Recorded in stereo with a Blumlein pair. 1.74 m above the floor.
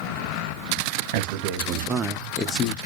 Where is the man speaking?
50° right, 0.9 m; by 2.8 s 40° left, 0.5 m.